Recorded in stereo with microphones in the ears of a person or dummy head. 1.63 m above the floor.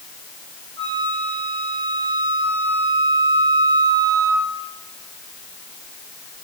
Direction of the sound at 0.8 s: 60° right (ahead or behind).